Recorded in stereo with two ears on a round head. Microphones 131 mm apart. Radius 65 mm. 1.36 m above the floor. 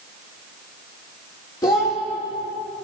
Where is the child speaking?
25° left (ahead or behind), 1.6 m.